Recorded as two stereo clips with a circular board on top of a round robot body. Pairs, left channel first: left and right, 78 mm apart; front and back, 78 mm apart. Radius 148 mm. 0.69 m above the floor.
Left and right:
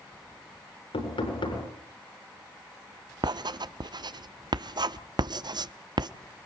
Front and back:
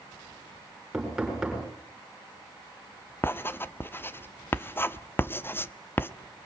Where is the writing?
60° right, 1.0 m.